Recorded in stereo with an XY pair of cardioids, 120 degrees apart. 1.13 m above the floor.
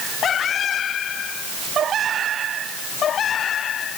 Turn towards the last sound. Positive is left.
No sound to turn to.